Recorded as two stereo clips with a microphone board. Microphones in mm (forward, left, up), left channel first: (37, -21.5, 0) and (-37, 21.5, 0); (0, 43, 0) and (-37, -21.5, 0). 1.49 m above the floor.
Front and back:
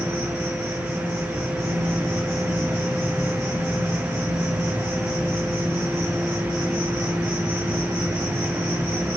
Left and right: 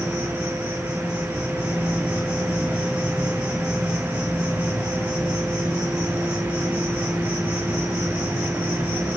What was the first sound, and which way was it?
An insect, 165° left.